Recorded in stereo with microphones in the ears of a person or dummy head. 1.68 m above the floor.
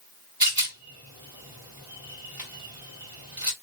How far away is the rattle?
About 1.3 m.